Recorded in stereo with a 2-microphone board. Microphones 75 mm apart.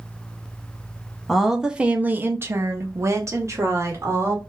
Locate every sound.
1.3 s a woman speaking: centre (ahead or behind), 0.7 m; by 4.4 s 40° right (ahead or behind), 1.4 m